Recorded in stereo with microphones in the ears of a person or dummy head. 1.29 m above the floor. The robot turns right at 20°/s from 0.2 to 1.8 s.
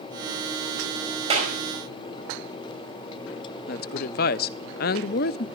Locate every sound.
1.3 s a clap: 35° right (ahead or behind), 5 m; by 1.5 s 40° right (ahead or behind), 5 m
3.7 s a woman speaking: 55° left (ahead or behind), 0.6 m